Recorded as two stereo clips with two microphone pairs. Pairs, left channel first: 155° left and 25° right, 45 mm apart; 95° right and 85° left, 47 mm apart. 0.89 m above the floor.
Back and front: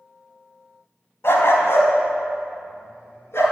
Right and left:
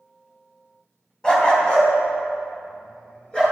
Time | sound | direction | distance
1.2 | a dog barking | 170° right | 2.5 m